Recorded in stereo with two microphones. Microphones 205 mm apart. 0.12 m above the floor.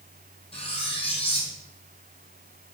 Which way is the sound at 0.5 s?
30° left (ahead or behind).